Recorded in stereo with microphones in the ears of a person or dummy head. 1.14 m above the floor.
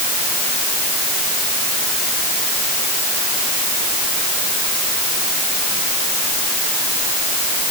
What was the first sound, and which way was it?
Only background noise.